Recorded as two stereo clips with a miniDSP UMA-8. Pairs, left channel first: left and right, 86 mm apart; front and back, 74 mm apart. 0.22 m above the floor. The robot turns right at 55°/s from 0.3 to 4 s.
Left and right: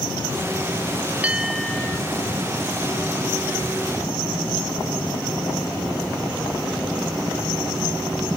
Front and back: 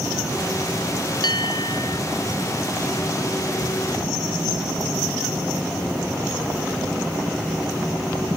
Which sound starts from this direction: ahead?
A bell, at 1.2 s.